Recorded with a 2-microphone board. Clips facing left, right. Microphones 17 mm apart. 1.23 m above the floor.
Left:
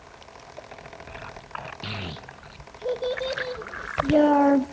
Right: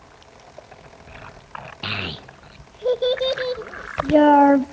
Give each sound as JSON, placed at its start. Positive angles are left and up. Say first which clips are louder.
{"t": 1.8, "sound": "a child speaking", "louder": "right 7 dB", "side_deg": -45, "distance_m": 0.5}